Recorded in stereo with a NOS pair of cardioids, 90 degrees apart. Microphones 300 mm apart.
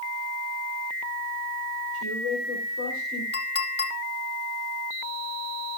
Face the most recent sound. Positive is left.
turn(degrees=35)